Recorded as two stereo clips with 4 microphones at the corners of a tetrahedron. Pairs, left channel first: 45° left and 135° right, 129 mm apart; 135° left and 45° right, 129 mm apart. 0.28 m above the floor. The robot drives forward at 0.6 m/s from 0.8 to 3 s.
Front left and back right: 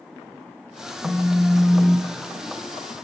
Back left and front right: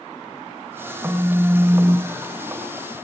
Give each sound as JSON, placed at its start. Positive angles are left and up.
{"t": 1.0, "sound": "a phone buzzing", "azimuth_deg": 15, "distance_m": 2.0}